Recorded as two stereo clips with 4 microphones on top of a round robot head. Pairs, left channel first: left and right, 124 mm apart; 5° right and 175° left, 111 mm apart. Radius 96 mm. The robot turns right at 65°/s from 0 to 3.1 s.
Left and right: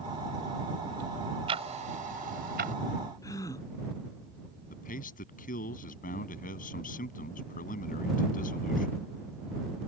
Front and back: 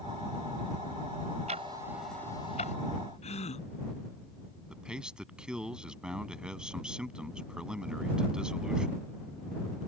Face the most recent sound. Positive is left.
turn(degrees=95)